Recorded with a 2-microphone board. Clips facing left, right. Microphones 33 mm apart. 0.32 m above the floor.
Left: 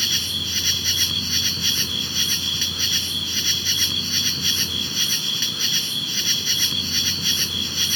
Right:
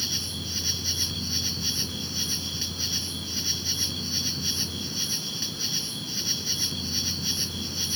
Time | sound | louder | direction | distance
0.0 | an insect | left 9 dB | 70° left (ahead or behind) | ?